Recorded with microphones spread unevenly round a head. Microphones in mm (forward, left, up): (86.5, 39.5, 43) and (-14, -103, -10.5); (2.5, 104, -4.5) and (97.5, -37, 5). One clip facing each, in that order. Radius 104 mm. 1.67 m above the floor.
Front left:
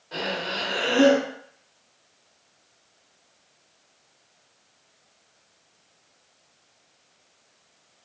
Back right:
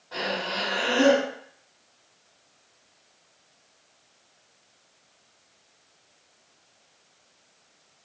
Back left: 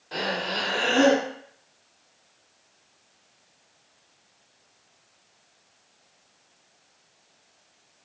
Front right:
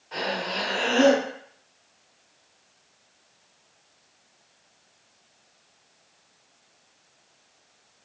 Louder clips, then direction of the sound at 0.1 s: Even, even; 85° left.